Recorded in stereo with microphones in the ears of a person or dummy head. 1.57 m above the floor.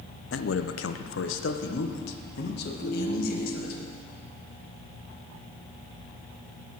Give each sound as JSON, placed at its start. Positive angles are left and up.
{"t": 0.3, "sound": "a man speaking", "side_deg": 65, "distance_m": 0.7}
{"t": 2.8, "sound": "a ringtone", "side_deg": 45, "distance_m": 3.5}